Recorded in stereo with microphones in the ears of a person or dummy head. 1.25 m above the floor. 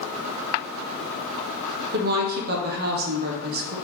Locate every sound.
1.9 s a woman speaking: 50° right (ahead or behind), 0.7 m